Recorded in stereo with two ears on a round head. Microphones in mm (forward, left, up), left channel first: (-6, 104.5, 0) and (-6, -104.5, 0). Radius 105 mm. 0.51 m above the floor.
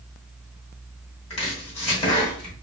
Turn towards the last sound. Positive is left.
turn(degrees=30)  # may be behind; listen again after turning